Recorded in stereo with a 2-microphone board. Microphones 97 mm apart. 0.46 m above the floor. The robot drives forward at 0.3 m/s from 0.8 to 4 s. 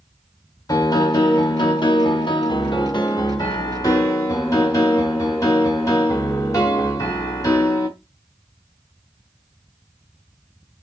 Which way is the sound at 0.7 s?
40° left (ahead or behind).